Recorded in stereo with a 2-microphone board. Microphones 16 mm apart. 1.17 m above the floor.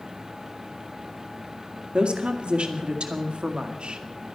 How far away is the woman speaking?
About 2 m.